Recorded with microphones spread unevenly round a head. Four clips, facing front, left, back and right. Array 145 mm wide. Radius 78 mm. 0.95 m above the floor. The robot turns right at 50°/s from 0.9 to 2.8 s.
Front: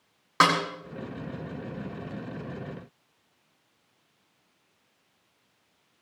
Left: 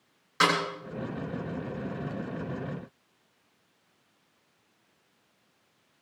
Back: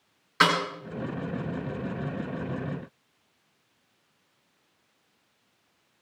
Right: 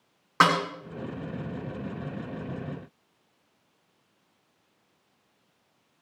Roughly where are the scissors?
No scissors in this recording.